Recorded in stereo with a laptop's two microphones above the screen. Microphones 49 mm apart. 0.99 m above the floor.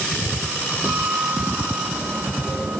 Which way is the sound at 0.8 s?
45° right (ahead or behind).